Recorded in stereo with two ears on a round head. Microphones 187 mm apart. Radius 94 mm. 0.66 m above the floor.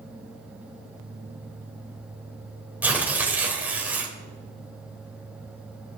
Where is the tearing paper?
10° right (ahead or behind), 3 m.